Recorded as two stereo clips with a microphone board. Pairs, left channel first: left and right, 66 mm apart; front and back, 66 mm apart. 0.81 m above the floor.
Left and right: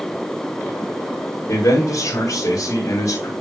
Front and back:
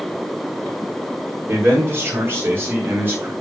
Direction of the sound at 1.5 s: 130° left.